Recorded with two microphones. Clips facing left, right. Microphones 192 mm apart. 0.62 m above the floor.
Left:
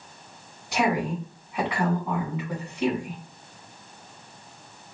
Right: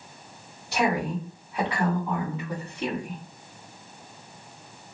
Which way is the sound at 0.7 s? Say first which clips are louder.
Left 1 dB; 15° left (ahead or behind).